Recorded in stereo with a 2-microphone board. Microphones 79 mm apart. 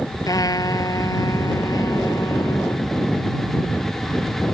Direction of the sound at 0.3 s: 50° left (ahead or behind).